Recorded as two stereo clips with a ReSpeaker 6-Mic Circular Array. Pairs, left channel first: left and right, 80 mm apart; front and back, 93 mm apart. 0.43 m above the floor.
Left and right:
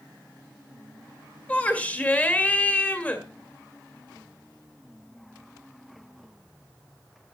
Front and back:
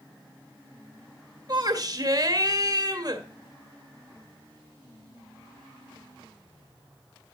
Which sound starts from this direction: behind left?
A shout, at 1.5 s.